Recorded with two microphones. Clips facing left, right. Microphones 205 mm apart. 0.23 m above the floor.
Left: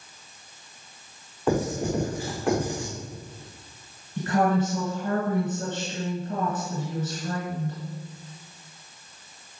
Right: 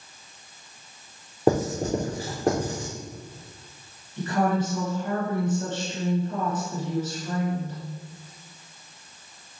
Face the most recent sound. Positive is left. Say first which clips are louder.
# left 1 dB
turn(degrees=50)  # may be behind; listen again after turning